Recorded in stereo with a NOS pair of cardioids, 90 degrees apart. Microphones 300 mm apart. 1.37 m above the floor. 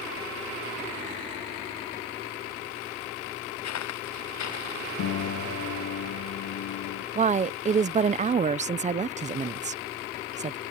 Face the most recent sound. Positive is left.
turn(degrees=-25)